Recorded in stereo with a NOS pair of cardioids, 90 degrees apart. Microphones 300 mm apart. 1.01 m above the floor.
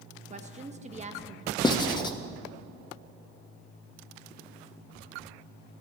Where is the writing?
15° left, 0.8 m.